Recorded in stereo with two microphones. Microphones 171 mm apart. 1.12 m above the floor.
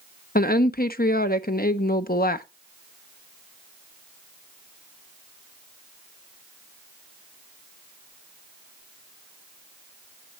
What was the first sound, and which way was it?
A woman speaking, 60° left (ahead or behind).